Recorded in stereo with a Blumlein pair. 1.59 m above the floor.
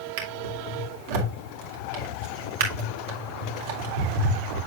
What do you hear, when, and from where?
0.2 s a drawer: 50° right, 2.5 m